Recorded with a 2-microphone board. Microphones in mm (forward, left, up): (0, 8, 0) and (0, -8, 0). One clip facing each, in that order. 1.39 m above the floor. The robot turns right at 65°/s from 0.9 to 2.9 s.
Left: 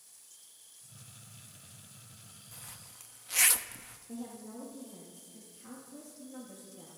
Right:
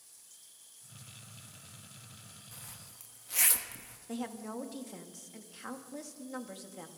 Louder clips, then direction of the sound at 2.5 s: Left 2 dB; 5° right (ahead or behind).